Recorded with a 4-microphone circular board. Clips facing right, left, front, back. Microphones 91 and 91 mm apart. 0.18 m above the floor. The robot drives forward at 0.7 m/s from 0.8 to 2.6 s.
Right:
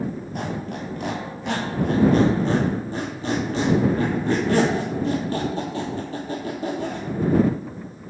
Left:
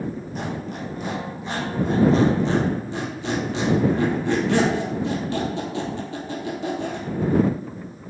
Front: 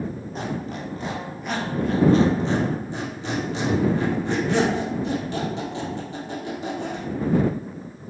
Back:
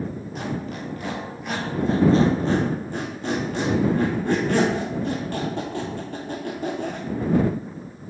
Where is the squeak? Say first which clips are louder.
Right 1 dB, even; 55° right, 0.8 m; by 7.1 s 140° right, 1.0 m.